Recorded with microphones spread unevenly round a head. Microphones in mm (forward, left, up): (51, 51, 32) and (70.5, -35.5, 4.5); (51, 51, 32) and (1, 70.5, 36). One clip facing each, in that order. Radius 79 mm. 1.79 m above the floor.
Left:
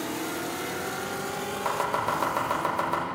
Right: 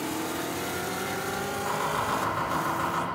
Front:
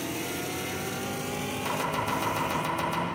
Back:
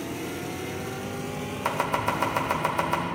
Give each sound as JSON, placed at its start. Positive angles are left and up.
{"t": 1.6, "sound": "chopping", "azimuth_deg": 115, "distance_m": 2.0}